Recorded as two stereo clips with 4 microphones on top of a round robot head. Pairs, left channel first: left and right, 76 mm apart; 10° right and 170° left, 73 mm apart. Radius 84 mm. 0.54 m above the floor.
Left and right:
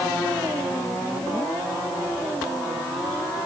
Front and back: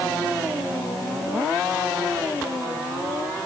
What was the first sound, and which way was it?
Only background noise.